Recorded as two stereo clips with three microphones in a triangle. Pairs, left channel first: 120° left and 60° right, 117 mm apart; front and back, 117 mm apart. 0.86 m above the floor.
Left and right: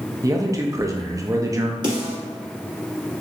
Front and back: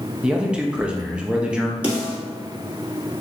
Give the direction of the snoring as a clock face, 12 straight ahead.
I don't hear snoring.